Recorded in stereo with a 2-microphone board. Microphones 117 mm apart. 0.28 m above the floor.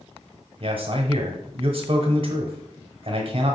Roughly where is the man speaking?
Right.